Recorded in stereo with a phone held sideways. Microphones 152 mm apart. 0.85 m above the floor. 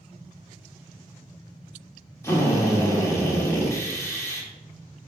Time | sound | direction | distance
2.2 | a drill | 20° left (ahead or behind) | 1.0 m